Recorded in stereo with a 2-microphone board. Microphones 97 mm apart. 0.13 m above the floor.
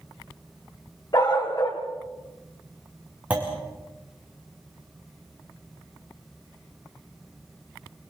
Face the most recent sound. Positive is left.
turn(degrees=-10)  # may be behind; listen again after turning